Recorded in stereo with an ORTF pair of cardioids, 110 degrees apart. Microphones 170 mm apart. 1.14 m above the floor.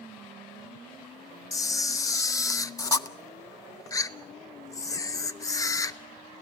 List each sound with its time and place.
1.5 s a camera shutter: 20° left, 0.6 m